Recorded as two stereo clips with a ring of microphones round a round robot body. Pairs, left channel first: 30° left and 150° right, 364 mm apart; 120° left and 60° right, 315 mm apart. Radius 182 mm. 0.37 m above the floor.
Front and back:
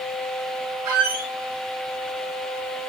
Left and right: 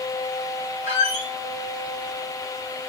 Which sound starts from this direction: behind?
A squeak, at 0.8 s.